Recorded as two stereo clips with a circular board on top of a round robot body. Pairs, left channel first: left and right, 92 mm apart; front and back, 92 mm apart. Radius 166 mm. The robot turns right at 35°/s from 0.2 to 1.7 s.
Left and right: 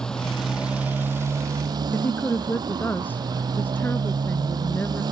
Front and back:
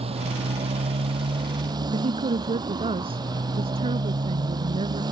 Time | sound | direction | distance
0.0 | a motorcycle | 175° left | ?
1.9 | a woman speaking | 160° left | ?